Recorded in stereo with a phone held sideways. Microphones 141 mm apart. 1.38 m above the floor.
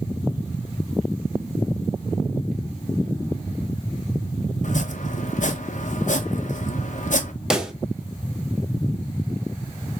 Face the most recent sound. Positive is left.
turn(degrees=-5)  # may be behind; listen again after turning